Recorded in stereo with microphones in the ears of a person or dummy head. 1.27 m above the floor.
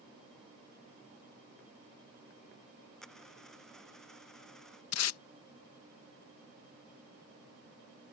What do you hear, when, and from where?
3.0 s a dropped coin: 5° left (ahead or behind)
4.9 s tape being pulled: 80° left